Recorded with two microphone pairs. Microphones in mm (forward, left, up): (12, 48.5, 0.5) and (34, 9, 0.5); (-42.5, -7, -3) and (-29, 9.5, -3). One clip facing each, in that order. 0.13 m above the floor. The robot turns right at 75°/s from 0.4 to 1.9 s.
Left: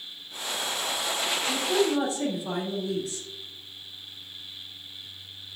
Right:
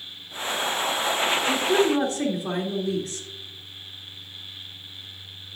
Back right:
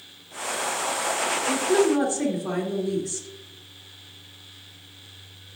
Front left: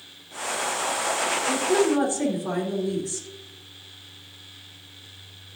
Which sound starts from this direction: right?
A woman speaking, at 1.5 s.